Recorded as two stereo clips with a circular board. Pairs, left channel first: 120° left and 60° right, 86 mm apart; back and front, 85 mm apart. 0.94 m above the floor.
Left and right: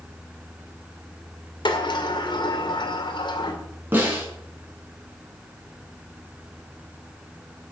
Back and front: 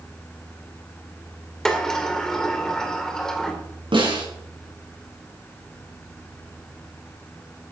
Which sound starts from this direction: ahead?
A snare drum, at 3.9 s.